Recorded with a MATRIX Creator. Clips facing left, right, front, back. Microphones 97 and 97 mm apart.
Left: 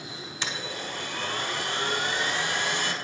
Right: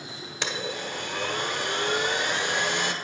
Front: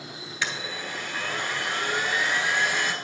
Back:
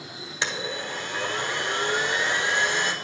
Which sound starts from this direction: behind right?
A blender, at 0.4 s.